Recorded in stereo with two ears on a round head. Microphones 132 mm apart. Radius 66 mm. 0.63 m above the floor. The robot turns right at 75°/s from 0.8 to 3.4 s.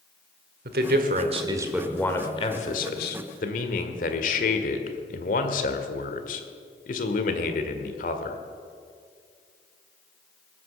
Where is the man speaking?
80° right, 1.7 m; by 8.4 s 115° left, 1.7 m.